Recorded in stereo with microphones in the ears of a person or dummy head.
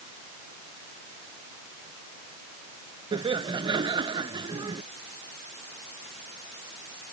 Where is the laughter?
25° right (ahead or behind).